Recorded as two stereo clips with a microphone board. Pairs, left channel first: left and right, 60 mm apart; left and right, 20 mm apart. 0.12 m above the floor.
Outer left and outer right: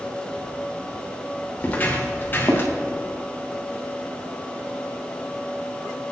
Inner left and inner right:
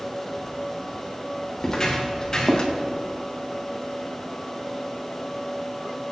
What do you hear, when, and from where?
1.6 s footsteps: 25° left (ahead or behind), 3.5 m; by 2.7 s 35° left (ahead or behind), 3 m